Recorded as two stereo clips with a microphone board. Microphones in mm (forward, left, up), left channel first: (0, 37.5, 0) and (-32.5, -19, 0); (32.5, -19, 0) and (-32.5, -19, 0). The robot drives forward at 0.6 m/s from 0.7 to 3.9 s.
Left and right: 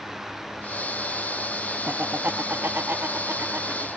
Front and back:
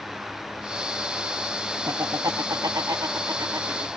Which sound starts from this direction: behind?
Laughter, at 1.9 s.